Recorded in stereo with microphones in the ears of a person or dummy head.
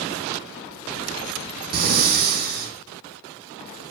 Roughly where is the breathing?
Right.